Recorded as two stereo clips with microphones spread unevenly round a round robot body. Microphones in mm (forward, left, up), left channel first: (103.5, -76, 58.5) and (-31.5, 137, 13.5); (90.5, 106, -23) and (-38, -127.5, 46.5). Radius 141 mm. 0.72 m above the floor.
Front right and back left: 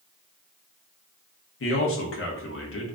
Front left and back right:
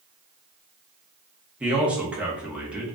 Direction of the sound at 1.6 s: 25° right.